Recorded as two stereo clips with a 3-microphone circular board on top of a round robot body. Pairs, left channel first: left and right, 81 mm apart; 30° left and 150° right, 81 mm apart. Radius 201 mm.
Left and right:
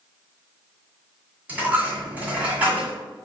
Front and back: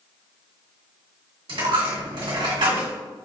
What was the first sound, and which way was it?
A dropped coin, 160° right.